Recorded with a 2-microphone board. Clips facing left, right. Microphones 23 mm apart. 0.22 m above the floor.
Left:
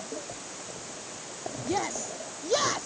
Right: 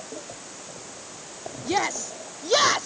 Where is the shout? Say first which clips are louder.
Right 5 dB; 40° right (ahead or behind).